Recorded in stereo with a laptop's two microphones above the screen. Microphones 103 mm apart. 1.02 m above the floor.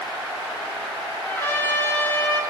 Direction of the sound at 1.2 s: 25° left (ahead or behind).